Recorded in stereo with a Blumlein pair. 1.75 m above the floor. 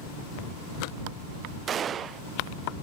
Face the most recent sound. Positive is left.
turn(degrees=-25)